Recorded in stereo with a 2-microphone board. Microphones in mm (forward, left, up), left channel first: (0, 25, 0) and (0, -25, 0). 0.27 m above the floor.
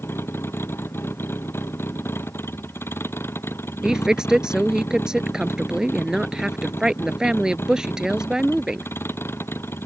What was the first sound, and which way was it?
A vehicle, 50° left (ahead or behind).